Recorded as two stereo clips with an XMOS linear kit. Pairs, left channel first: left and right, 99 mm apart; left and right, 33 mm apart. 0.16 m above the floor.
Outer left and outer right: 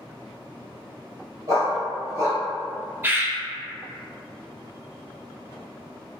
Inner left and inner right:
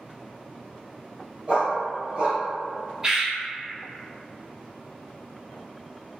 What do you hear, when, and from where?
1.5 s a dog barking: 30° right (ahead or behind), 1.8 m
3.0 s a bird: 25° right (ahead or behind), 0.6 m